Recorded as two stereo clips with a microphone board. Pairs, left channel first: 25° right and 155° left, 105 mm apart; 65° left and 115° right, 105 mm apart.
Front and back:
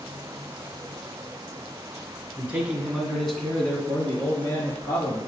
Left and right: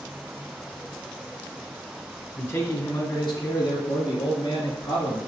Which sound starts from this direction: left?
A man speaking, at 2.4 s.